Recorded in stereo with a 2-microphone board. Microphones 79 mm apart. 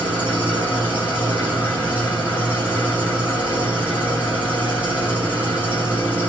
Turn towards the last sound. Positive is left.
turn(degrees=-20)  # may be behind; listen again after turning